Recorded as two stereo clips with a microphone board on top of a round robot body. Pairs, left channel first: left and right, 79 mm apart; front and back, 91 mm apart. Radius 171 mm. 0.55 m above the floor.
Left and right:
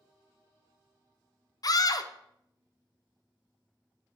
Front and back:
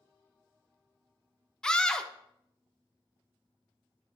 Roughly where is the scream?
Left.